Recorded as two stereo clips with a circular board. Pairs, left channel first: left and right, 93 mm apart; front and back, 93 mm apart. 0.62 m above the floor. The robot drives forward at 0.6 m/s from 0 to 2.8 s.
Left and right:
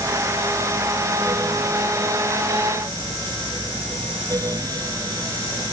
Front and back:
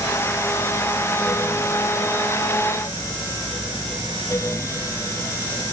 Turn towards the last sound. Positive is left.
No sound to turn to.